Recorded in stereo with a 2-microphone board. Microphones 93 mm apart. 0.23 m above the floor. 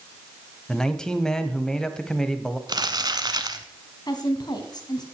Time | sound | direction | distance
0.7 | a man speaking | 5° left (ahead or behind) | 1.0 m
2.7 | crumpling | 50° right (ahead or behind) | 1.1 m
4.1 | a woman speaking | 50° left (ahead or behind) | 2 m